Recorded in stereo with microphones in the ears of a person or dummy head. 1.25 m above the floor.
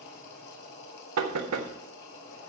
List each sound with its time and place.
0.0 s a machine running: 55° left (ahead or behind), 3 m
1.2 s knocking: 85° right, 1.5 m